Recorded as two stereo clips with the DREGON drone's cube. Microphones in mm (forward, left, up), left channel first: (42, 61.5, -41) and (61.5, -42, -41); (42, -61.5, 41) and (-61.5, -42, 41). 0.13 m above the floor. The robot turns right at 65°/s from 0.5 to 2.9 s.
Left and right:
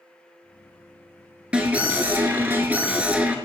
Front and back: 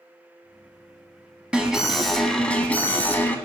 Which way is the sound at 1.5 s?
130° right.